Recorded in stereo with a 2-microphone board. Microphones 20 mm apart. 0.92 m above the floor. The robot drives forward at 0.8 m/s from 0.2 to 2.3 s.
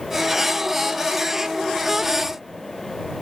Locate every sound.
Only background noise.